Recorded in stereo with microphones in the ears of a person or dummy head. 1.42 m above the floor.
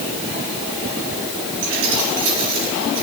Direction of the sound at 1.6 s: 75° right (ahead or behind).